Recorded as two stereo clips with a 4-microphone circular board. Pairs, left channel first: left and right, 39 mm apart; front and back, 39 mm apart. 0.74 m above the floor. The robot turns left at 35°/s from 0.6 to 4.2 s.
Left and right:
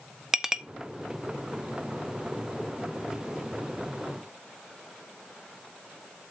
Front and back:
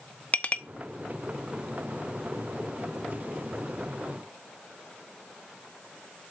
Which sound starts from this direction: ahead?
A clink, at 0.3 s.